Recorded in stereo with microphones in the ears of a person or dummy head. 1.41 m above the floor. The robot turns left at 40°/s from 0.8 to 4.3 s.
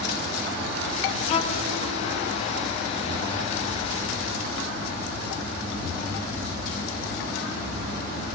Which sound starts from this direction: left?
A violin, at 1.3 s.